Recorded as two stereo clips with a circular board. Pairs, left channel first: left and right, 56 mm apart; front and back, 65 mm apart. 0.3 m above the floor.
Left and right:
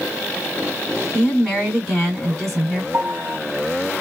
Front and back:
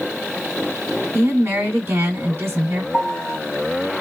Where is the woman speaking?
175° left, 1.7 m.